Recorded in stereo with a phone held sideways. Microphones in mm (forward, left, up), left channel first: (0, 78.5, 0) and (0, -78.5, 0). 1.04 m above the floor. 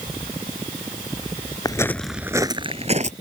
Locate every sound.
1.6 s footsteps: 25° left (ahead or behind); by 3.1 s 50° right (ahead or behind)